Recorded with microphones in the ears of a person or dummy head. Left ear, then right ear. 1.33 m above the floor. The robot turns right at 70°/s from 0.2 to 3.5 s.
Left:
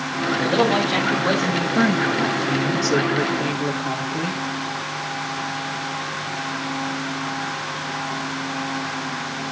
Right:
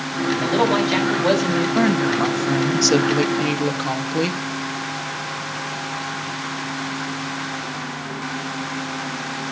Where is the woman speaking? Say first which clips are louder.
Left 1 dB; 160° right, 2 m; by 4.4 s 35° right, 2 m.